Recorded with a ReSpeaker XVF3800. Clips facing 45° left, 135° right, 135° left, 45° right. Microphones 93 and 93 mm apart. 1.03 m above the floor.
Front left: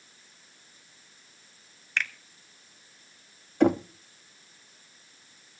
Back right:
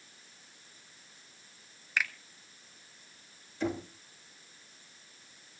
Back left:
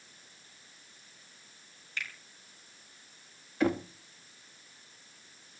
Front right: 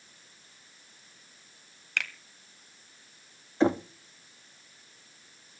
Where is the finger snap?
50° right, 1.8 m.